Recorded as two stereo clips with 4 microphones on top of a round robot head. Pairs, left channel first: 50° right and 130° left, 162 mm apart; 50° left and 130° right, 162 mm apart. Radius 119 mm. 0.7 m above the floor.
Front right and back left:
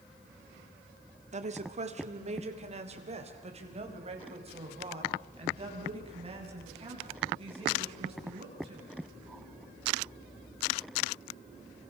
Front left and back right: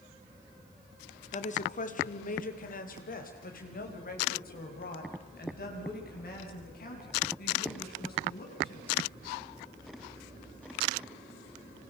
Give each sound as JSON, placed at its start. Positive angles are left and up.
{"t": 1.3, "sound": "a woman speaking", "azimuth_deg": 90, "distance_m": 2.0}